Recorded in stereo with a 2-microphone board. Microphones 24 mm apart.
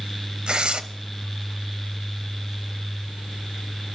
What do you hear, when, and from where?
0.5 s tearing paper: 40° right (ahead or behind), 0.8 m